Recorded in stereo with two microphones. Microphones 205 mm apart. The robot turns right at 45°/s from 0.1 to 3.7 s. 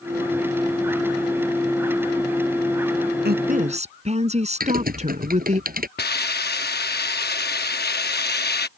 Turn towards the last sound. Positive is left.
turn(degrees=55)  # may be behind; listen again after turning